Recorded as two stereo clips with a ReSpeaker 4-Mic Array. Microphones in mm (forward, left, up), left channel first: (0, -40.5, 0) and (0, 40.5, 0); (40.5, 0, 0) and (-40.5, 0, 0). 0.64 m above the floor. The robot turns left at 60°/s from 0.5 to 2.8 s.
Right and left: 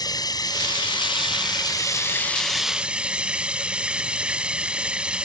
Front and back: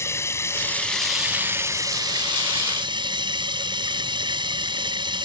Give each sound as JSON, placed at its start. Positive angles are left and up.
{"t": 0.0, "sound": "running water", "azimuth_deg": -55}